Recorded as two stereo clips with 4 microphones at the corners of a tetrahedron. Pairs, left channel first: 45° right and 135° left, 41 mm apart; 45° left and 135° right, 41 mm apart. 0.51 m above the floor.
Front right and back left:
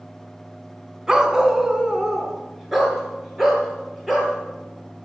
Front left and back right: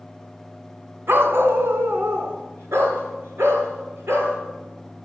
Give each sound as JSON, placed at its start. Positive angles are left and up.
{"t": 1.1, "sound": "a dog barking", "azimuth_deg": -150, "distance_m": 1.3}